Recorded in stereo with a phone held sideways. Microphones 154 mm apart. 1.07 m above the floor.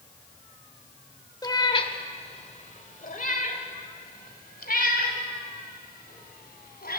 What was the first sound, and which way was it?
A cat meowing, 25° left (ahead or behind).